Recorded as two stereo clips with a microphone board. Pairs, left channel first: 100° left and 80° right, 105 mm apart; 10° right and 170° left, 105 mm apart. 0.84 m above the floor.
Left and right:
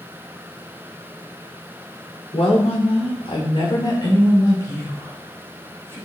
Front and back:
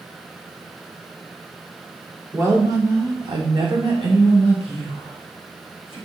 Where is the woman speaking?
105° left, 1.9 m; by 6.0 s 170° left, 4 m.